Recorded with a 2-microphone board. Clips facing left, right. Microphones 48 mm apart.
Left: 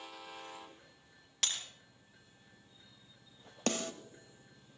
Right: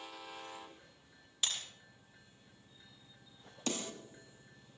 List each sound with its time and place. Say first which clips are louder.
1.4 s breaking glass: even; 80° left, 4 m
3.7 s a snare drum: left 4 dB; 55° left (ahead or behind), 1.2 m